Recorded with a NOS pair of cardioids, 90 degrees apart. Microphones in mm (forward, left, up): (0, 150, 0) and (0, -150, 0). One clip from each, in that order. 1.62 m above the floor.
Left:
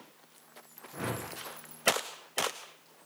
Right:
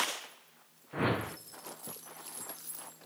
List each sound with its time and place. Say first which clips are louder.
0.9 s a whoosh: right 5 dB; 40° right, 1.1 m